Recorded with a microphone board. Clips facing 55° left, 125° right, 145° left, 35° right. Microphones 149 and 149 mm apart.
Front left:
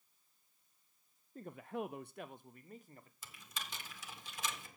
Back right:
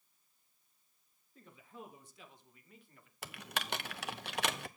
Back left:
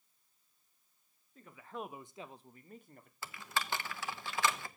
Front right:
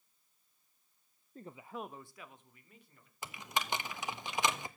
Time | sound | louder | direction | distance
1.4 | a man speaking | front left 11 dB, front right 1 dB | 10° left | 0.5 m
3.2 | typing on a keyboard | back right 9 dB, front right 1 dB | 105° right | 0.7 m